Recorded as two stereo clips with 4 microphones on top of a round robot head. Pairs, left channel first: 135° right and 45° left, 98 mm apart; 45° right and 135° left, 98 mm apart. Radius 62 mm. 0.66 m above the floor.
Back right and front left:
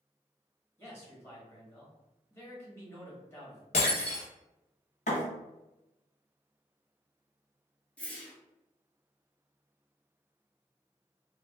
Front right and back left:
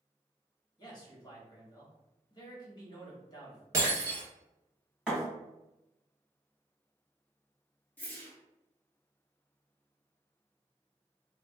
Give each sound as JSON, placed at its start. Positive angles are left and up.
{"t": 0.8, "sound": "a man speaking", "azimuth_deg": -75, "distance_m": 1.5}
{"t": 3.7, "sound": "breaking glass", "azimuth_deg": -165, "distance_m": 1.0}
{"t": 5.1, "sound": "a thud", "azimuth_deg": -145, "distance_m": 1.2}
{"t": 8.0, "sound": "a whoosh", "azimuth_deg": -80, "distance_m": 0.9}